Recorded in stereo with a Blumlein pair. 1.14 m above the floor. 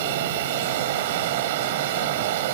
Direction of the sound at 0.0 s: 55° right.